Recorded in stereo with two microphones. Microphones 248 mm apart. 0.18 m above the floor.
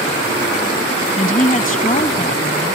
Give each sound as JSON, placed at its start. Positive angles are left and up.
{"t": 1.2, "sound": "a woman speaking", "side_deg": 30}